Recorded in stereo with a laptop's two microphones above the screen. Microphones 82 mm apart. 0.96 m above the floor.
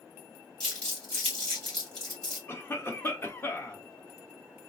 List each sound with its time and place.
0.6 s crumpling: 10° left (ahead or behind), 1.9 m
2.5 s a cough: 30° left (ahead or behind), 0.9 m